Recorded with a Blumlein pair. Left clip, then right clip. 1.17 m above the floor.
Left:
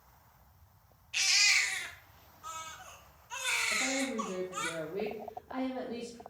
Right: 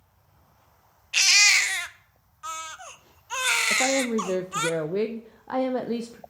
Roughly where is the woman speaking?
Ahead right.